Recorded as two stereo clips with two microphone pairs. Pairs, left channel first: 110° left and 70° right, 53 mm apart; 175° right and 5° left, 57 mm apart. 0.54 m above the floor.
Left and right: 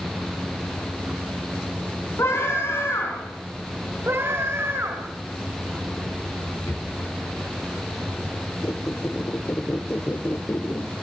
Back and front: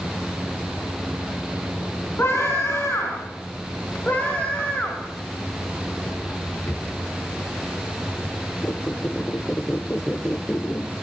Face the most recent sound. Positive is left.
turn(degrees=135)